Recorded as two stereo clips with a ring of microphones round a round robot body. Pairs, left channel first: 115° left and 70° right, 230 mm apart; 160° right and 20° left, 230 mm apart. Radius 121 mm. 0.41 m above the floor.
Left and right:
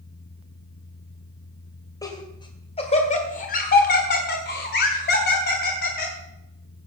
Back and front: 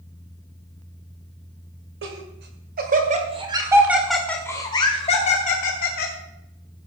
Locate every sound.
2.0 s laughter: 40° left, 2.5 m; by 6.1 s 160° left, 3 m